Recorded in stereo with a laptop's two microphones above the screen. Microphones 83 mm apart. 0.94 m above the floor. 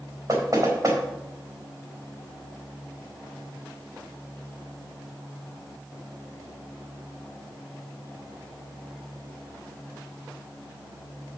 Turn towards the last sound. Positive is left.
turn(degrees=-45)  # may be behind; listen again after turning